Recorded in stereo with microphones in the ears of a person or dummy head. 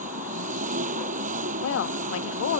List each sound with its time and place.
0.0 s an engine running: 40° right (ahead or behind)
1.6 s a woman speaking: 80° left